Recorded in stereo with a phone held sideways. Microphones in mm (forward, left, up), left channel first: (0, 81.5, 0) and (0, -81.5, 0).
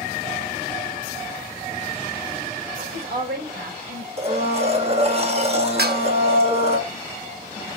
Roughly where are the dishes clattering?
Right.